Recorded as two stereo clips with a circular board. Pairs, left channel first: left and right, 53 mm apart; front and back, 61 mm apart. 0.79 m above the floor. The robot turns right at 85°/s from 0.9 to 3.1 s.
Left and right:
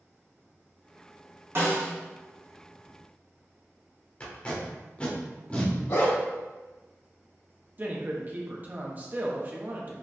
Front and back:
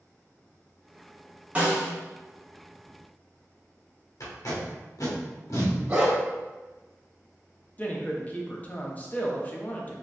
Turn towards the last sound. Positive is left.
turn(degrees=-50)